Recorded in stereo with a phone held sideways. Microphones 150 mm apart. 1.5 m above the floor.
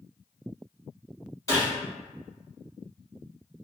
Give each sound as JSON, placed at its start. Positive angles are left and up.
{"t": 1.5, "sound": "a gunshot", "side_deg": 20, "distance_m": 1.8}